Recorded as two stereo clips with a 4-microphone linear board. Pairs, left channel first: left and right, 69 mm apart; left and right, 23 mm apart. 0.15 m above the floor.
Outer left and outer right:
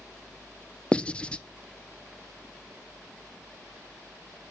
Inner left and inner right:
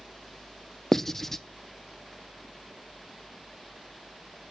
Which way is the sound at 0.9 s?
20° left (ahead or behind).